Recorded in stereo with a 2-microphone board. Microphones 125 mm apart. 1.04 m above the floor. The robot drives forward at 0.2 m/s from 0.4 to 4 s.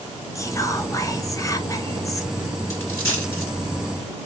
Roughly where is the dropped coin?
Left.